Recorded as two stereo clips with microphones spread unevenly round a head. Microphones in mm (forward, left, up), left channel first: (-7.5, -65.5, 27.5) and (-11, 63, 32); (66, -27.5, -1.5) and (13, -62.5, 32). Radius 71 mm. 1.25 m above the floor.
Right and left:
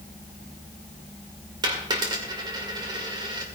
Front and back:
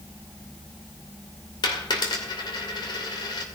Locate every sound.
1.6 s a dropped coin: 35° left, 2.5 m